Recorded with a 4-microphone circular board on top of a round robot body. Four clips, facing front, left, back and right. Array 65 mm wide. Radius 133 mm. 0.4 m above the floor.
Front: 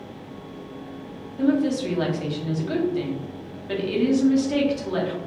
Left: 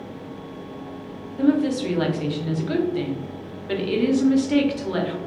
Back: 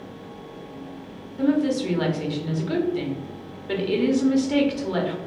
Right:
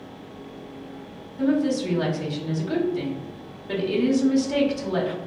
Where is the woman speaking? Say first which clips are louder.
Left 2 dB, even; 115° left, 1.0 m.